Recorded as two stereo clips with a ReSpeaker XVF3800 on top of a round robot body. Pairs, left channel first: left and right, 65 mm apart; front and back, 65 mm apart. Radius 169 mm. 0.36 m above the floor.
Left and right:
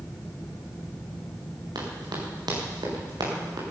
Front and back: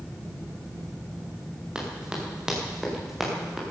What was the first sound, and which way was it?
Running footsteps, 105° right.